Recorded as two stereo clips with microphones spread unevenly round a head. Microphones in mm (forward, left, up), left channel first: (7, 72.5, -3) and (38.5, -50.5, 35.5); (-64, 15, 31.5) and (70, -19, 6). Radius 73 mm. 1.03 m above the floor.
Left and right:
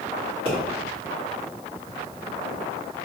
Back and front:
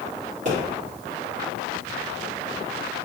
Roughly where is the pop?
Ahead right.